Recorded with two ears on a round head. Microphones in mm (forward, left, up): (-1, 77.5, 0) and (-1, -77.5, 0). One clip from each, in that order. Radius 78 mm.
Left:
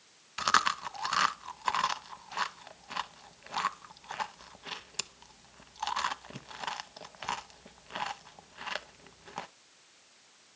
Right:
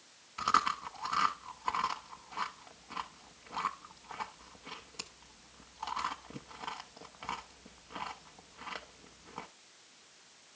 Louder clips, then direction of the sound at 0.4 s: Left 3 dB; 65° left (ahead or behind).